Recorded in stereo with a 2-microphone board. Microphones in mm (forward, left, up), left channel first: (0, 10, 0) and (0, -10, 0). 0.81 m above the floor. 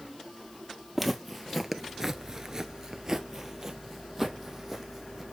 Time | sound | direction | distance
0.9 | footsteps | 5° right (ahead or behind) | 1.5 m